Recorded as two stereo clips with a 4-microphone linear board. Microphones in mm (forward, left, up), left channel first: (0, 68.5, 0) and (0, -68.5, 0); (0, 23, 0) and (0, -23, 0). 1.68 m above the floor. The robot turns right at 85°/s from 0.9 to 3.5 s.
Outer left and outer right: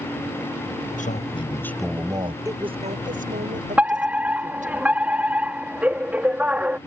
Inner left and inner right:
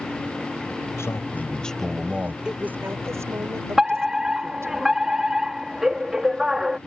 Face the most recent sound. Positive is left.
turn(degrees=-10)  # may be behind; listen again after turning